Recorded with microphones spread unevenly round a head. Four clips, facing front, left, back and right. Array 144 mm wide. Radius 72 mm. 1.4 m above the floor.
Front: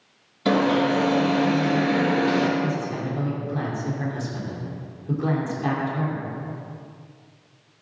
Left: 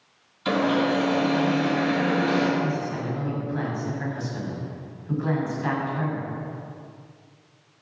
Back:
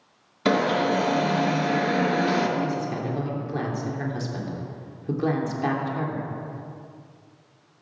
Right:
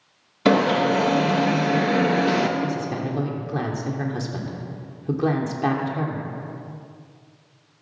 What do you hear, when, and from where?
0.5 s an alarm: 100° right, 1.9 m
2.6 s a woman speaking: 110° right, 3.5 m